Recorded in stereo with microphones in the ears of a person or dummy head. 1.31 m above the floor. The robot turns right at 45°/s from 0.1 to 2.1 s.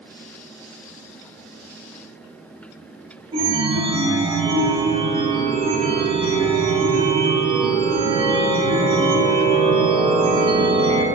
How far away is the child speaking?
I don't hear a child speaking.